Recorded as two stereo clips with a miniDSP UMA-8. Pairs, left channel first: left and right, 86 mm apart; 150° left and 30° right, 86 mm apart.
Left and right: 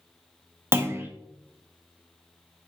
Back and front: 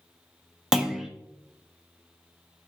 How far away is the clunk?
About 0.8 m.